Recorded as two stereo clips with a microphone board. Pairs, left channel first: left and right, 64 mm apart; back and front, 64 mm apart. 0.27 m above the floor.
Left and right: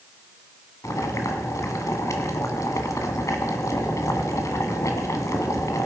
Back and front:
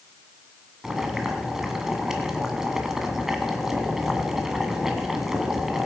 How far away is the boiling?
About 1.5 m.